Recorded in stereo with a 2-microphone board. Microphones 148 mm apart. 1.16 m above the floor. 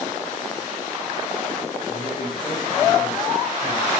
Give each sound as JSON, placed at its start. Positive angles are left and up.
{"t": 1.9, "sound": "a man speaking", "side_deg": 35, "distance_m": 9.5}